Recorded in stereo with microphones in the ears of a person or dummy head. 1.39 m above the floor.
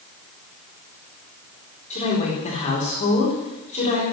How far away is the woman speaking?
About 4.5 m.